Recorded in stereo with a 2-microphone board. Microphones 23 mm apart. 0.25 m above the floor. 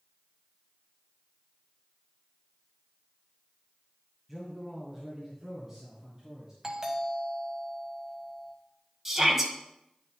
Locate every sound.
4.3 s a man speaking: 5° right (ahead or behind), 1.9 m; by 6.5 s 25° right (ahead or behind), 3 m
6.6 s a doorbell: 30° right (ahead or behind), 1.6 m
9.1 s a shout: 20° right (ahead or behind), 1.8 m